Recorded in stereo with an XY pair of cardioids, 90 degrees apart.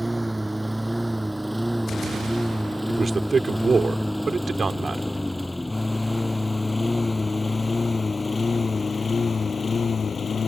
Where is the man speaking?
35° right.